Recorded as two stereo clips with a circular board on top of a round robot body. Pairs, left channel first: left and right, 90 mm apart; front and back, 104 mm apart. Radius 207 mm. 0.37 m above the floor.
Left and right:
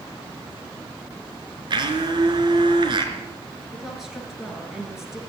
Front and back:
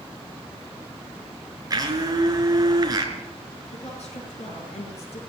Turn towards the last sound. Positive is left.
turn(degrees=-5)